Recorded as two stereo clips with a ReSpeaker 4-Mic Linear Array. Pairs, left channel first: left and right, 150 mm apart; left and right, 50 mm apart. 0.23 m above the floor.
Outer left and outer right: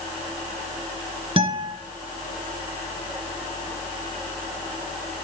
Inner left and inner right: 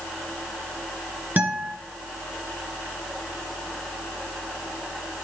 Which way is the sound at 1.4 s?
35° right (ahead or behind).